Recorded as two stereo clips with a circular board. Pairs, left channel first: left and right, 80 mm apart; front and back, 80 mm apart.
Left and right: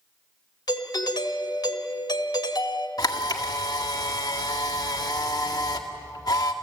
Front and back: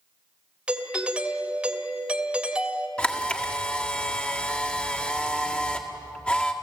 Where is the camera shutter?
70° left, 1.8 m.